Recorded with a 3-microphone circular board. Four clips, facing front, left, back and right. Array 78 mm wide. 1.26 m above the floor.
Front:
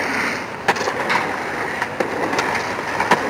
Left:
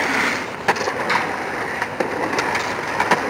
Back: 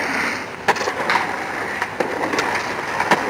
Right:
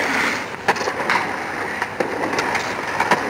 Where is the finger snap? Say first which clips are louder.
Right 1 dB, back 2 dB; 130° right, 0.9 m.